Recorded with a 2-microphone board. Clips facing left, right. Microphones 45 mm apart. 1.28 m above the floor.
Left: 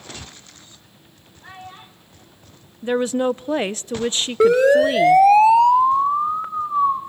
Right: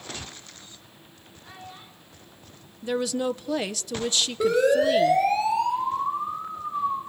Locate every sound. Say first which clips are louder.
1.4 s a child speaking: left 5 dB; 55° left (ahead or behind), 8.5 m
2.8 s a woman speaking: left 6 dB; 30° left (ahead or behind), 0.7 m
4.4 s a siren: left 7 dB; 65° left (ahead or behind), 4 m; by 7.0 s 70° left (ahead or behind), 5.5 m